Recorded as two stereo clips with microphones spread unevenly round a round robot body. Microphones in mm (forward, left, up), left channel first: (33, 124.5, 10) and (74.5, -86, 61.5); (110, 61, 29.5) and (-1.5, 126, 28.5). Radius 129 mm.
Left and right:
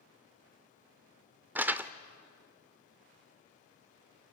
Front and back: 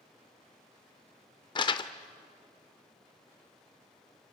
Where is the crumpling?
25° right, 0.6 m.